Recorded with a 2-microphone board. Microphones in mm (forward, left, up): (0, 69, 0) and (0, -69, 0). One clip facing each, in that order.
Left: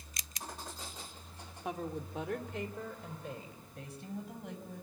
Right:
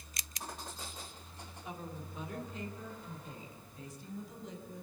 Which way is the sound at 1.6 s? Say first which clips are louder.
Left 7 dB; 75° left (ahead or behind).